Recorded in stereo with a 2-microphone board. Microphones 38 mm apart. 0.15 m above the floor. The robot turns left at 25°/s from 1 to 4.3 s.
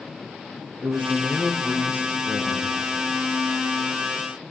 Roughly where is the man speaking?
Right.